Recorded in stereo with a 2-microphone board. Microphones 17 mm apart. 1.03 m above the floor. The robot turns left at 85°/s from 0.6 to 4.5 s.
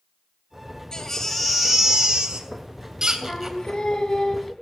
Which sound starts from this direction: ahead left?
A baby crying, at 0.9 s.